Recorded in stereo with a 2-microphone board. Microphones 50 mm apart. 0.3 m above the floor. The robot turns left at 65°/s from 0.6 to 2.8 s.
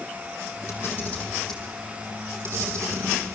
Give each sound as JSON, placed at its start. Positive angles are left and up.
{"t": 0.7, "sound": "a camera shutter", "side_deg": 60, "distance_m": 6.0}